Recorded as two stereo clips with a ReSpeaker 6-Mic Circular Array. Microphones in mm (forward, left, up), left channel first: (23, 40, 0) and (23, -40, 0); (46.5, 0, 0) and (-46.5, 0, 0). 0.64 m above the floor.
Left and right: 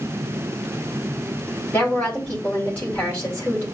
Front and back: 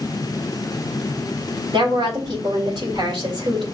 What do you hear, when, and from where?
1.7 s a woman speaking: 160° left, 3 m